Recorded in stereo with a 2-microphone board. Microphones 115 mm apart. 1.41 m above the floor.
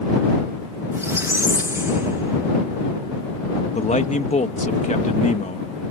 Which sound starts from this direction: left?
A man speaking, at 3.8 s.